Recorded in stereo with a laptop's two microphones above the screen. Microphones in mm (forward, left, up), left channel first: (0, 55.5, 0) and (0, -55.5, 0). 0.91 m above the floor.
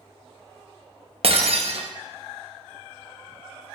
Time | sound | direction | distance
1.2 | breaking glass | 60° right (ahead or behind) | 0.6 m